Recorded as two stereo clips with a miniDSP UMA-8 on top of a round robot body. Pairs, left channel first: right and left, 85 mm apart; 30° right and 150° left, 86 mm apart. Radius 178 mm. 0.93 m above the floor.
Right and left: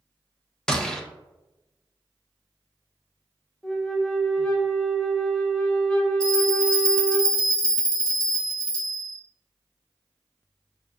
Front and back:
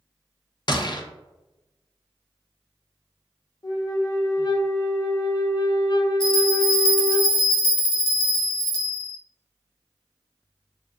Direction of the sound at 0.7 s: 10° right.